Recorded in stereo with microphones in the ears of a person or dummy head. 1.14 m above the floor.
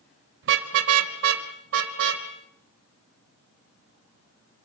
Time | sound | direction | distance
0.4 | a car horn | 65° right (ahead or behind) | 2.5 m